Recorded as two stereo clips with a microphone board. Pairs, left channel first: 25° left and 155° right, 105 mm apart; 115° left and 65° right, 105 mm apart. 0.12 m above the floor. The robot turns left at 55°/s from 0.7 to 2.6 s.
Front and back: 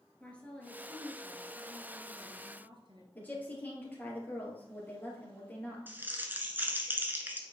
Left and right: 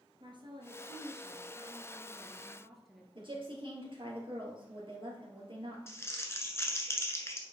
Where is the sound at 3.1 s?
45° right, 2.5 m.